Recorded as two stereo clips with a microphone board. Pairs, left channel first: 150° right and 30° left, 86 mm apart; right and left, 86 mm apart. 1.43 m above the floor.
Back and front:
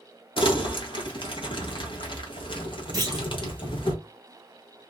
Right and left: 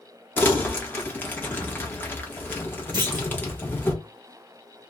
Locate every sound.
0.4 s crumpling: 155° right, 1.0 m
2.9 s a clunk: 65° left, 1.0 m